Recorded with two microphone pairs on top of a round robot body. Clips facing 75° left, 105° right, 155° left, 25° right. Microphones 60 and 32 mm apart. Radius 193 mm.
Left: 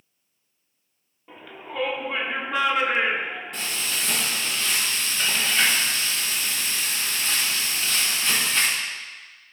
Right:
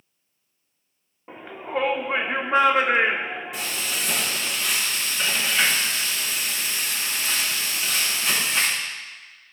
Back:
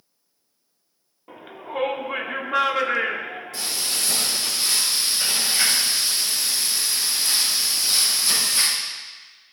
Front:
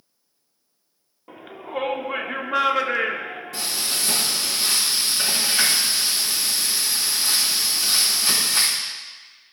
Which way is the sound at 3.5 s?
20° right.